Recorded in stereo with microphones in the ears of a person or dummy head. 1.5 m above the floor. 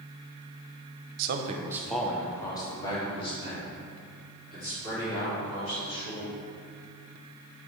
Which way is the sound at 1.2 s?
55° right (ahead or behind).